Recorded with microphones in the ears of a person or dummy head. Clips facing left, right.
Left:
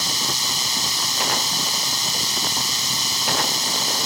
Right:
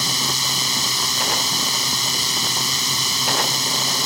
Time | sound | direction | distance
0.0 | a drone | 65° right (ahead or behind) | ?